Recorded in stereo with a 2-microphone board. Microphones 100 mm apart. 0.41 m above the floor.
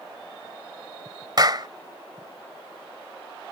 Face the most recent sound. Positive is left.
turn(degrees=-45)  # may be behind; listen again after turning